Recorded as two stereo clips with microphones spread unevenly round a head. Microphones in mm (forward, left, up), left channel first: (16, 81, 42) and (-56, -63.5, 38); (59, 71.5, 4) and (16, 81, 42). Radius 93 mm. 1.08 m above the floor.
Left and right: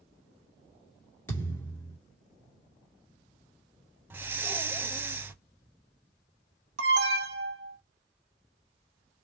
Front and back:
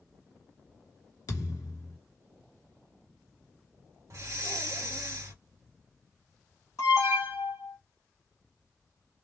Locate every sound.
1.3 s a thud: 5° right, 1.2 m
4.1 s breathing: 165° left, 0.5 m
6.8 s an alarm: 85° right, 0.7 m